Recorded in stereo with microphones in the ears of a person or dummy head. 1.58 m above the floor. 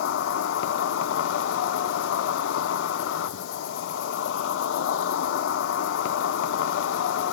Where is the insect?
80° left, 0.9 m.